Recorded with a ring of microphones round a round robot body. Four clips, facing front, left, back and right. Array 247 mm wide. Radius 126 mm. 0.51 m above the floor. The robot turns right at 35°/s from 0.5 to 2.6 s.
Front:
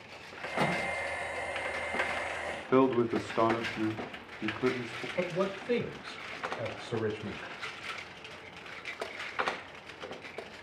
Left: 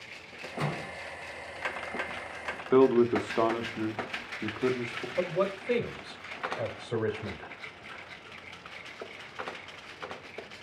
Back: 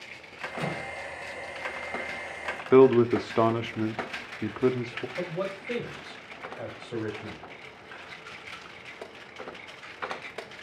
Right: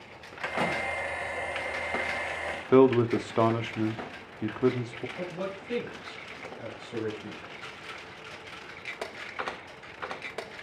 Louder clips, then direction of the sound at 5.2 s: Left 8 dB, front 2 dB; 65° left.